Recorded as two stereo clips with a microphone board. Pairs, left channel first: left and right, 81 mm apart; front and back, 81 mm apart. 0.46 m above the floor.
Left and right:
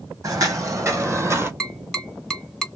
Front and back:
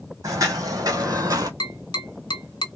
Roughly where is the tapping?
Ahead.